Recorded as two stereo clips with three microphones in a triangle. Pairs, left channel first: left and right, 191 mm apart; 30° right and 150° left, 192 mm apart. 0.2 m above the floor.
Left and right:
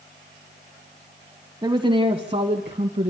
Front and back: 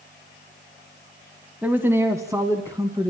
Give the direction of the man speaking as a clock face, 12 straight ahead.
4 o'clock.